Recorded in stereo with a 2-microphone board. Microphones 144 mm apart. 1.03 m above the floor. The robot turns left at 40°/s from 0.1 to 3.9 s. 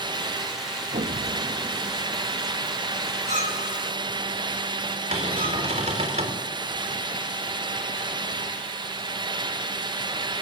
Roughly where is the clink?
Right.